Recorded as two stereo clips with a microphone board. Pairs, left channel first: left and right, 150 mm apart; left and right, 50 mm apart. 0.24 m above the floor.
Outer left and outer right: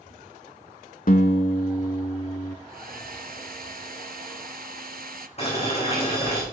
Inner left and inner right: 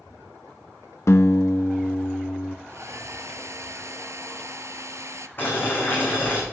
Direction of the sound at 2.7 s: 85° right.